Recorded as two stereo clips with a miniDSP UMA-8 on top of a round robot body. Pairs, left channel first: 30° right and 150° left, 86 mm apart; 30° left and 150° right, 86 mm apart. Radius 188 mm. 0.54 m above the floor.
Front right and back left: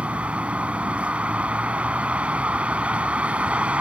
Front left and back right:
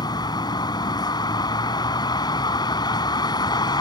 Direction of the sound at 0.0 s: 75° left.